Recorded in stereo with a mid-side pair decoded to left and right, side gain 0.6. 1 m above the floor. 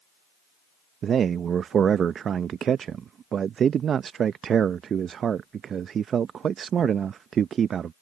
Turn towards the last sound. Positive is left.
turn(degrees=-40)